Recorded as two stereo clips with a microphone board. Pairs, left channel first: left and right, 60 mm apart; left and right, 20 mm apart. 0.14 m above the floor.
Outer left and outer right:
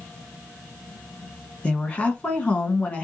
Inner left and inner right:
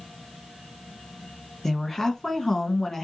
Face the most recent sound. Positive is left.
turn(degrees=20)  # may be behind; listen again after turning